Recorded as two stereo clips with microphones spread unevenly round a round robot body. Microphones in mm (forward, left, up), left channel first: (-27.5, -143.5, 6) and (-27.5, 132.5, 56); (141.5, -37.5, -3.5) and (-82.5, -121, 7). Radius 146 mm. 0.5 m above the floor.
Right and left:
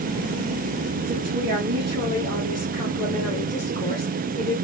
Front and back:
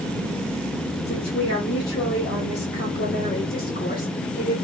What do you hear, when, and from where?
1.1 s a woman speaking: 30° left, 1.6 m; by 4.5 s 30° right, 2 m